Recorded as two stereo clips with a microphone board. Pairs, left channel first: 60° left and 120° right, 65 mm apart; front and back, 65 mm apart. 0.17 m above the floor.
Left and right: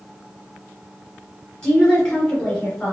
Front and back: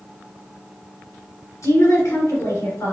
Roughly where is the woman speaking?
Ahead.